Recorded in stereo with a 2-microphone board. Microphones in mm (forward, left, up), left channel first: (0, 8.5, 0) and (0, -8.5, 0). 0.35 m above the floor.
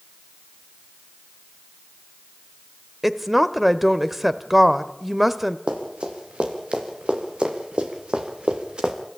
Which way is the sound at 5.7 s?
80° right.